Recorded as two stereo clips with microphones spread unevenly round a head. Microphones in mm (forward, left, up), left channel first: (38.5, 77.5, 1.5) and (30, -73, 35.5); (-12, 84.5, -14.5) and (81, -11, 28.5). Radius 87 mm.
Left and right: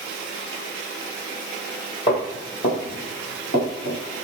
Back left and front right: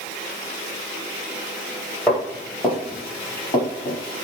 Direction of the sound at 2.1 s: 45° left.